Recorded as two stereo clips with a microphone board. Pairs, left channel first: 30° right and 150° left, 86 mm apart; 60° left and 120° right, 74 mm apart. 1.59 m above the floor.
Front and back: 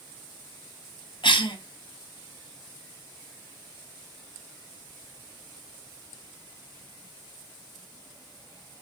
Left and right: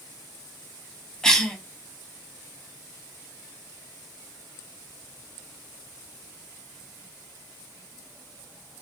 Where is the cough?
20° right, 0.7 m.